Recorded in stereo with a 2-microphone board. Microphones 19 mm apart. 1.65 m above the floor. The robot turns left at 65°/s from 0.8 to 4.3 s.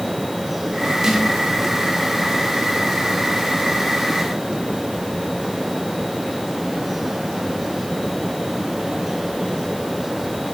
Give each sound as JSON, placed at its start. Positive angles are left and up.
{"t": 1.0, "sound": "a snare drum", "side_deg": -30, "distance_m": 5.0}